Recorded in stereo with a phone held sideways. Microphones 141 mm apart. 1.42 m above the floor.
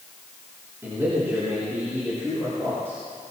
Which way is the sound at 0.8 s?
20° right (ahead or behind).